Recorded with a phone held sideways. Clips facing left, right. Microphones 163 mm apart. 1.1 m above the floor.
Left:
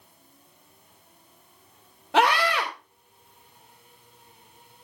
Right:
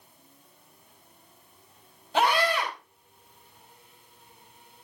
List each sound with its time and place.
2.1 s a scream: 75° left (ahead or behind), 3.5 m